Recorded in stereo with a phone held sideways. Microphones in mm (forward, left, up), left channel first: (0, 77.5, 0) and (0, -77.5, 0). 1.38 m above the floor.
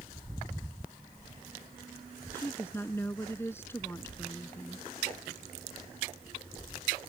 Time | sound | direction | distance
2.3 | a woman speaking | 15° left (ahead or behind) | ?